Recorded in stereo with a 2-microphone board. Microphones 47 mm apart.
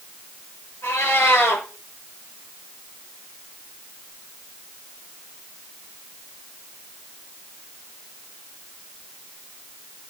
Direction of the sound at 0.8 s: 70° left (ahead or behind).